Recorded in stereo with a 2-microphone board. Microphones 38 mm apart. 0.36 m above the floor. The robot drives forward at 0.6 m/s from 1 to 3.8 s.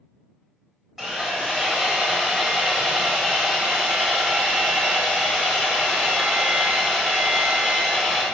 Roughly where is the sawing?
Centre.